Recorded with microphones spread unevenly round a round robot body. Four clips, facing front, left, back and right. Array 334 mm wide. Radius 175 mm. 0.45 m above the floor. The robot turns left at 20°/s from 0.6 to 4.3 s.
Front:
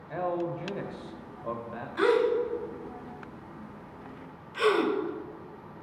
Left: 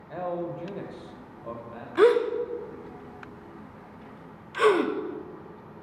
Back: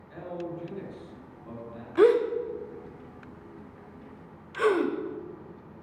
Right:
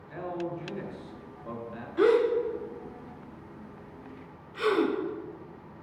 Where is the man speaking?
35° left, 2 m; by 1.9 s 10° left, 2 m.